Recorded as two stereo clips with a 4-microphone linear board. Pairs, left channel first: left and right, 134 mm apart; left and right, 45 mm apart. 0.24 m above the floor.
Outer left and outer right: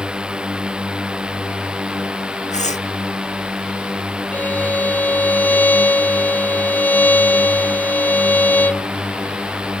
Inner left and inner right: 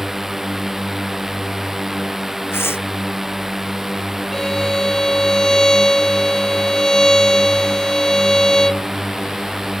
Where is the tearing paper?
60° left (ahead or behind).